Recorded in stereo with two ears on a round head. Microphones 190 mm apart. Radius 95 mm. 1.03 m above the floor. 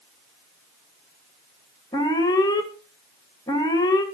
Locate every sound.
1.9 s an alarm: 20° left (ahead or behind), 2 m